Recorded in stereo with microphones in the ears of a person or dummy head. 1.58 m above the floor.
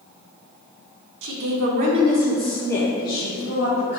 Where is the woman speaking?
65° right (ahead or behind), 0.8 m; by 4.0 s 35° left (ahead or behind), 1.7 m.